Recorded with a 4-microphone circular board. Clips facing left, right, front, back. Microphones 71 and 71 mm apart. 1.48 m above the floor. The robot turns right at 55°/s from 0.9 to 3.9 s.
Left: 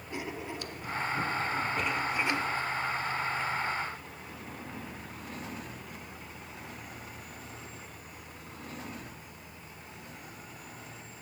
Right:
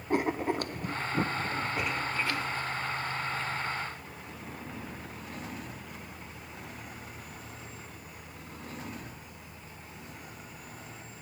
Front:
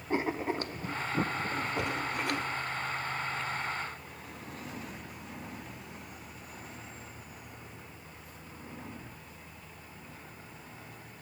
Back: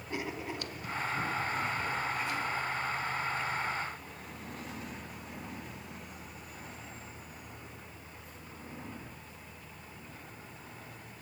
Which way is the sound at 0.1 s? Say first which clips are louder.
Right 10 dB, front 7 dB; 55° right.